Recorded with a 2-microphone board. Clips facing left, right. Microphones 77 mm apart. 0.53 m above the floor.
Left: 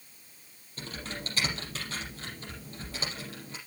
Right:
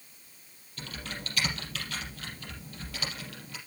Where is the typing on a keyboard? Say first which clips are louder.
Left 1 dB; 30° left (ahead or behind), 5 m.